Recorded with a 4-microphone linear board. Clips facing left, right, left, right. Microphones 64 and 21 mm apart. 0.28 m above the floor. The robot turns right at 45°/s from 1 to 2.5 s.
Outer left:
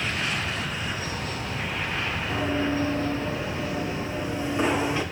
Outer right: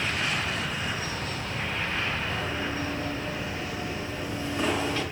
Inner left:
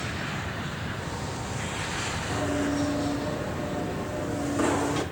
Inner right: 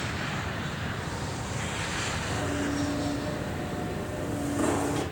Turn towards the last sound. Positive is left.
turn(degrees=15)  # may be behind; listen again after turning